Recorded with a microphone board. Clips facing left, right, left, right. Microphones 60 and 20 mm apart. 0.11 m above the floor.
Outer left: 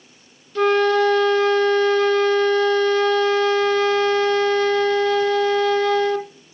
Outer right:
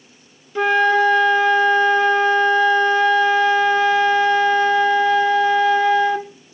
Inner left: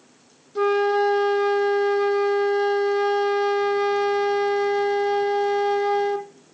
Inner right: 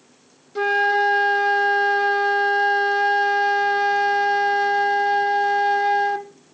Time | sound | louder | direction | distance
0.6 | a flute | outer right 1 dB, inner right 1 dB | 15° right (ahead or behind) | 0.5 m